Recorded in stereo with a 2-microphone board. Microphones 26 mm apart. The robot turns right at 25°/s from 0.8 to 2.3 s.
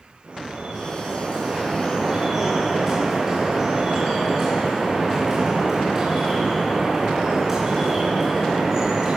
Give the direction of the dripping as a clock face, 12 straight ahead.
2 o'clock.